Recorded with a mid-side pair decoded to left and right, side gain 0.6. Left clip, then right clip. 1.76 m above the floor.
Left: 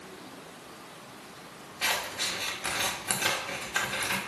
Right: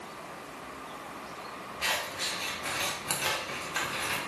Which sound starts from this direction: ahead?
Scissors, at 1.8 s.